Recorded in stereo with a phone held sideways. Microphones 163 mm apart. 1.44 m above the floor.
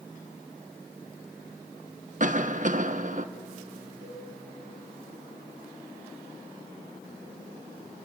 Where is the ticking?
No ticking in this recording.